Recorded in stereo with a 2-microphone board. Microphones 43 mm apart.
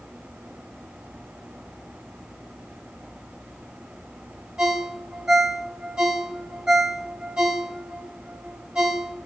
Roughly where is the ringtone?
Centre.